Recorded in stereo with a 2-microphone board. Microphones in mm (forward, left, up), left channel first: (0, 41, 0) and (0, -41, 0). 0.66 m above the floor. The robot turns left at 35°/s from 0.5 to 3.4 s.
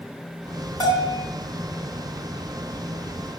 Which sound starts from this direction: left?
A bell, at 0.8 s.